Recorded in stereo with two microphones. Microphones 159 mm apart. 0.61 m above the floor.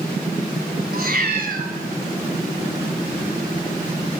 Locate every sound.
0.9 s a cat meowing: 70° right (ahead or behind), 2.0 m